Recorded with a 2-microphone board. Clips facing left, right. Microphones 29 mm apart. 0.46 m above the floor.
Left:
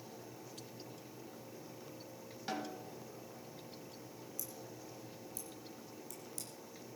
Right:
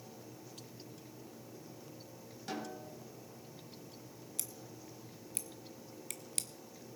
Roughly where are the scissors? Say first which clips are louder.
Right 2 dB; right.